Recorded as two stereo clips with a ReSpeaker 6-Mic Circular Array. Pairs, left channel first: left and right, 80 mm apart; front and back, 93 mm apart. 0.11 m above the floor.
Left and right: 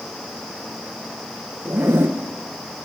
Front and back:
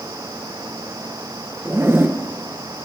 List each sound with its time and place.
1.6 s a zipper: 130° right, 0.9 m